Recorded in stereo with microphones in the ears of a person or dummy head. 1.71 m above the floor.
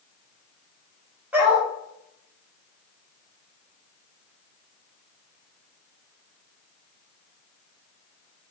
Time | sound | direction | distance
1.3 | a dog barking | 10° right (ahead or behind) | 4 m